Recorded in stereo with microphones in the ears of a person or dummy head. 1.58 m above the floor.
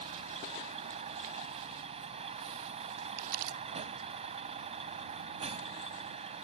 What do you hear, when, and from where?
0.0 s a vehicle: 35° right (ahead or behind)
3.2 s crumpling: 50° right (ahead or behind)